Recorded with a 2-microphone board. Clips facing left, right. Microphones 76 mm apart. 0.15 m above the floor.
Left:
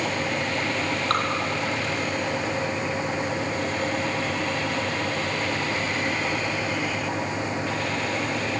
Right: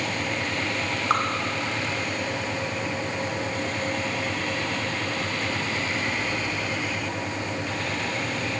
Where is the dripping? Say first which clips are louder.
Right 2 dB; 10° right (ahead or behind), 3 m.